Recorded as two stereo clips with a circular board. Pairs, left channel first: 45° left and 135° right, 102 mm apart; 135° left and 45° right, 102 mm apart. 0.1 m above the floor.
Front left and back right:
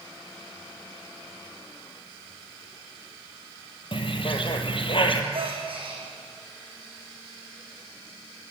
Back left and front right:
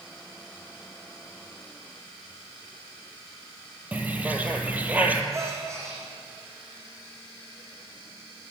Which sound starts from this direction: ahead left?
A bird, at 3.9 s.